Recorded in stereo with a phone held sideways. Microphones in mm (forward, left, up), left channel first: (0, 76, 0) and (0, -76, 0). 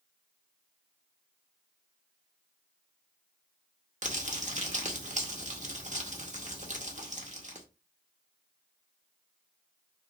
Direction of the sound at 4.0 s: 50° right (ahead or behind).